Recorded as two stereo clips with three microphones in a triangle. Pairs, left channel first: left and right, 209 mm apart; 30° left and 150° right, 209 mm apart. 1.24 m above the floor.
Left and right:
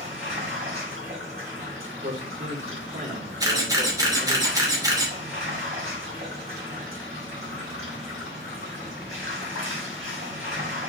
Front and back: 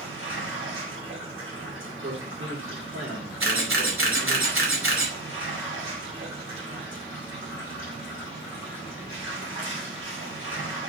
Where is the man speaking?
140° right, 4.5 m.